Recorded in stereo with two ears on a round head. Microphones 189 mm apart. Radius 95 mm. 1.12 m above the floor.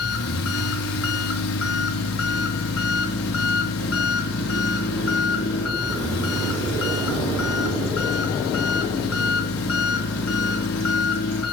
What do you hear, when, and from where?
0.0 s an engine running: 75° left (ahead or behind), 4.5 m